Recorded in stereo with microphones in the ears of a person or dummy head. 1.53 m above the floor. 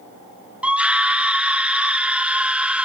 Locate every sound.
0.6 s a scream: 10° right (ahead or behind), 0.6 m